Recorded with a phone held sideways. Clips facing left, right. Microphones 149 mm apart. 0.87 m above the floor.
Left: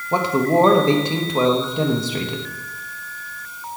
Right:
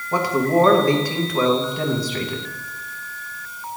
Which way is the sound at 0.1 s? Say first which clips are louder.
Left 1 dB; 25° left (ahead or behind).